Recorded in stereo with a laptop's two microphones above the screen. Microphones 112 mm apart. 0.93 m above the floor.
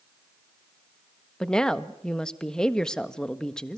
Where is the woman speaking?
5° left (ahead or behind), 1.4 m.